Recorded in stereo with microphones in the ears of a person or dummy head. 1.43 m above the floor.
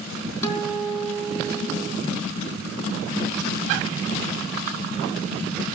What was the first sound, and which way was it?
A guitar, 20° left (ahead or behind).